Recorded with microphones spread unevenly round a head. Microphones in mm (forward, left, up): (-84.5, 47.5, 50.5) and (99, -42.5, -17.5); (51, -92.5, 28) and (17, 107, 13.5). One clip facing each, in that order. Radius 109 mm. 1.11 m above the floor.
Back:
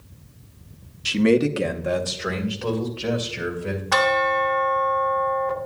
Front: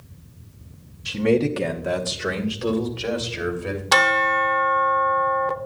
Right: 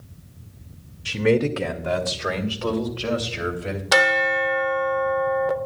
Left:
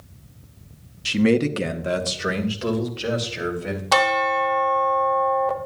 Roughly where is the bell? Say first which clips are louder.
Back 3 dB, even; ahead.